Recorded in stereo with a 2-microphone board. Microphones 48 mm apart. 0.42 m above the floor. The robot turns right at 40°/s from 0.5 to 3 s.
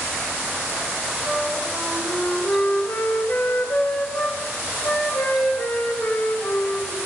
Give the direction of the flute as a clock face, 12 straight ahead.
12 o'clock.